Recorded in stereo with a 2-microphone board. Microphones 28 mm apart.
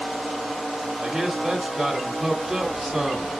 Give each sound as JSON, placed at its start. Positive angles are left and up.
{"t": 1.0, "sound": "a man speaking", "side_deg": -25, "distance_m": 1.3}